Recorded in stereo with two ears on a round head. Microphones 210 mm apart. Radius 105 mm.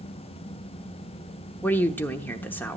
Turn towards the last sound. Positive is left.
turn(degrees=10)  # may be behind; listen again after turning